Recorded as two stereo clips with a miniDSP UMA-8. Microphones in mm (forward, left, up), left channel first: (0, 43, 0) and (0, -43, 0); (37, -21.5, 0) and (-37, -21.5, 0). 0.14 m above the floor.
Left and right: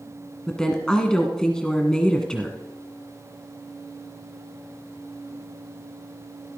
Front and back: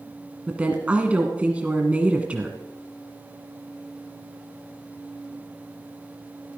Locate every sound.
0.5 s a woman speaking: 155° left, 1.3 m